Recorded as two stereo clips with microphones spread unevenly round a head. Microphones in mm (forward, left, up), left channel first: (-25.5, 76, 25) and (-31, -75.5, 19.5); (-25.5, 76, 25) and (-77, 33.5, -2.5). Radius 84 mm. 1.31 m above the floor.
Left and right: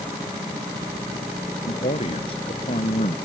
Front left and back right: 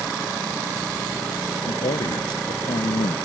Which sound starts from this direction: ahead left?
A man speaking, at 1.7 s.